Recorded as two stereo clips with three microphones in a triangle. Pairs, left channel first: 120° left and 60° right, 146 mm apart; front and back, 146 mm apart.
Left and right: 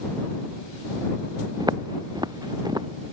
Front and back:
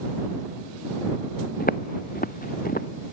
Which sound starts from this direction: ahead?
Footsteps, at 1.6 s.